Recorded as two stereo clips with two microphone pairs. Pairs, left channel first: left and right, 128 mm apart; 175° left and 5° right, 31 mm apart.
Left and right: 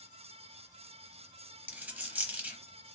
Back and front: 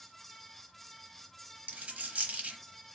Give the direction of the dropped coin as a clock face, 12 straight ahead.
12 o'clock.